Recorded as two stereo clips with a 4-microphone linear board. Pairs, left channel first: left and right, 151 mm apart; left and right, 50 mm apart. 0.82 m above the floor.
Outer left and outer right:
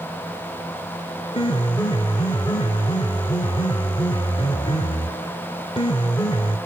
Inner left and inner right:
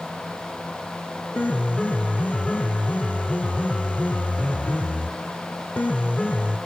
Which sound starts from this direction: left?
A piano, at 1.3 s.